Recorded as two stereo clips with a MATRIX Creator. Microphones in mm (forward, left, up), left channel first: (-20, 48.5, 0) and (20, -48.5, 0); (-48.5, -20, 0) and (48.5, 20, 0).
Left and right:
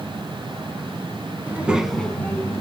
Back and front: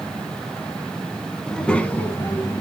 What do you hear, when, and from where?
1.5 s a child speaking: 80° right, 0.7 m; by 2.6 s 160° left, 0.9 m